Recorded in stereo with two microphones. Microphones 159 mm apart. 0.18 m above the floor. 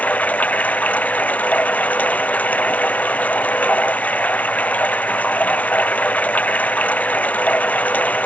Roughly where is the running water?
Centre.